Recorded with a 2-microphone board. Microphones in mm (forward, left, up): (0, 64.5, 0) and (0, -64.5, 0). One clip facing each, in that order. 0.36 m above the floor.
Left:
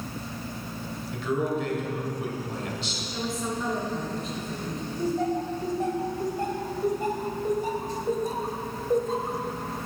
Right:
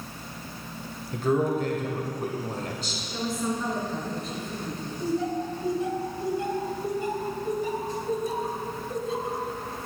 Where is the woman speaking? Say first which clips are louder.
Right 2 dB; centre (ahead or behind), 3.5 m.